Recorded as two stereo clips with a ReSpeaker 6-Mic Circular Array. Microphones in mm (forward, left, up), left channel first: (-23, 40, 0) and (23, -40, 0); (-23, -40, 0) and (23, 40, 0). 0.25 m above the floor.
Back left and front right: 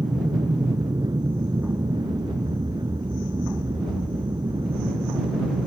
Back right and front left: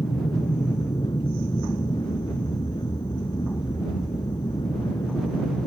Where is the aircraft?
95° right.